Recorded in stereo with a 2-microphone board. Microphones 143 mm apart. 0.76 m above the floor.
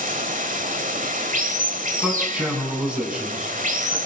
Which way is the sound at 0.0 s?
70° right (ahead or behind).